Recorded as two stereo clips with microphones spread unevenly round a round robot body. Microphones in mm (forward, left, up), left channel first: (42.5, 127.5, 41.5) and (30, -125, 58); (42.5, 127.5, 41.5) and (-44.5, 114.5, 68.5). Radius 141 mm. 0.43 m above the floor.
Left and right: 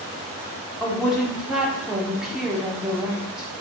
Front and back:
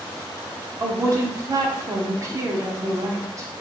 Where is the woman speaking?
175° left, 0.7 m.